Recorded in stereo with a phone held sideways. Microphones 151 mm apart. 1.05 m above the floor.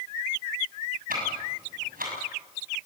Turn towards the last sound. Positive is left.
turn(degrees=-75)  # may be behind; listen again after turning